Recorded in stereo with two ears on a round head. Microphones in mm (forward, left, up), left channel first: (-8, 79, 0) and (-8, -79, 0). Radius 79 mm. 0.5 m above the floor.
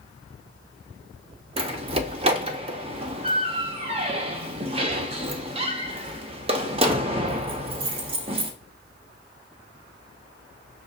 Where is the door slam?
35° right (ahead or behind), 0.6 m.